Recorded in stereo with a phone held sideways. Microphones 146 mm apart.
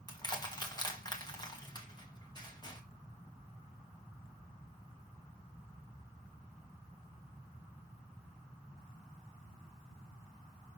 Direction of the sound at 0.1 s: 30° left (ahead or behind).